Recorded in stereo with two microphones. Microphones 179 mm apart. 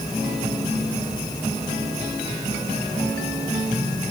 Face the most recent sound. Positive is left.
No sound to turn to.